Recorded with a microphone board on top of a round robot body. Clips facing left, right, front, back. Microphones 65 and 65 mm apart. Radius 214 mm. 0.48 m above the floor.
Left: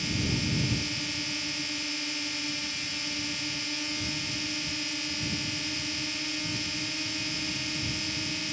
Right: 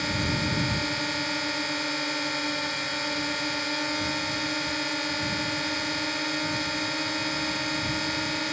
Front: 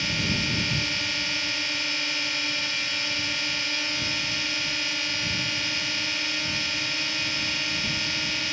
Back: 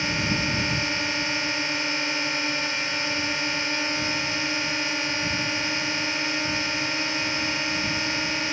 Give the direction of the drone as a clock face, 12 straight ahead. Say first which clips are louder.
Right 4 dB, back 3 dB; 4 o'clock.